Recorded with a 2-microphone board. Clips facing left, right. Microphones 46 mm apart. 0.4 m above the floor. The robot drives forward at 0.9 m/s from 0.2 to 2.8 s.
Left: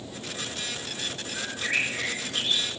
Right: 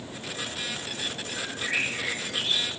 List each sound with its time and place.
1.3 s a bird: 25° left (ahead or behind), 1.4 m; by 2.7 s 10° left (ahead or behind), 2.5 m